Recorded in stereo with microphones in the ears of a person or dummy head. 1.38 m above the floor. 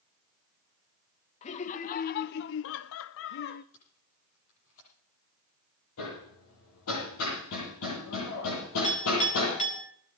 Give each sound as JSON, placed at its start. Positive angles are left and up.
{"t": 1.4, "sound": "laughter", "side_deg": 40, "distance_m": 1.1}
{"t": 3.7, "sound": "tape being pulled", "side_deg": 65, "distance_m": 8.5}
{"t": 6.0, "sound": "hammering", "side_deg": 75, "distance_m": 9.0}
{"t": 8.8, "sound": "a clink", "side_deg": 35, "distance_m": 4.0}